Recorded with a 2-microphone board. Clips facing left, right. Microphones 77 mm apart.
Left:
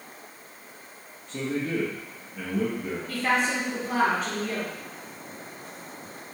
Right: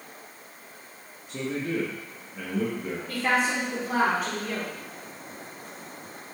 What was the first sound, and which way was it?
A man speaking, 15° right (ahead or behind).